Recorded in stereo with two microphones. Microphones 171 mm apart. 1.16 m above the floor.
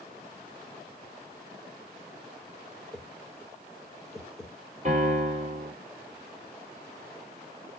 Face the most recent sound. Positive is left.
turn(degrees=-50)  # may be behind; listen again after turning